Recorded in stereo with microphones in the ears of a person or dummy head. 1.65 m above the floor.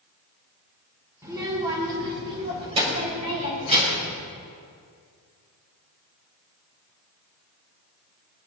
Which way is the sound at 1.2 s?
20° right (ahead or behind).